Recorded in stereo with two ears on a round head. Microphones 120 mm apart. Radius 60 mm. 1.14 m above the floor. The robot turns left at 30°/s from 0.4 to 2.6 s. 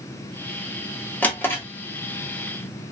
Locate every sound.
1.2 s a drawer: 10° left (ahead or behind), 0.7 m; by 1.6 s 20° left (ahead or behind), 0.7 m